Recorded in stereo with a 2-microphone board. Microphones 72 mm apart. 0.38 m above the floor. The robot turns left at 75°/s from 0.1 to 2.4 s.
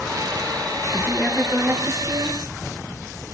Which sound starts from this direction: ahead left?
A woman speaking, at 0.9 s.